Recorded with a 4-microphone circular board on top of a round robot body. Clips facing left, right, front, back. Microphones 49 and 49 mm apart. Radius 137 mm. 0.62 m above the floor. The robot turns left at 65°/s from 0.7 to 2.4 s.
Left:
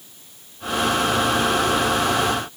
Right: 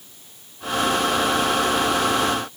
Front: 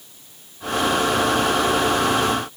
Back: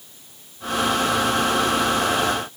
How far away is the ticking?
No ticking in this recording.